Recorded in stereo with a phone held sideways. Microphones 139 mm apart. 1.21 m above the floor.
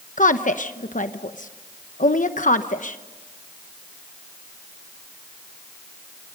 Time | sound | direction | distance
0.2 | a woman speaking | 65° left (ahead or behind) | 0.9 m